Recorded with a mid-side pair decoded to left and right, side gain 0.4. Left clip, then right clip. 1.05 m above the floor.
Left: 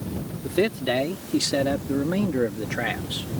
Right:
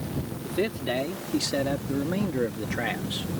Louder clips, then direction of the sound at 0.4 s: Left 5 dB; 40° left.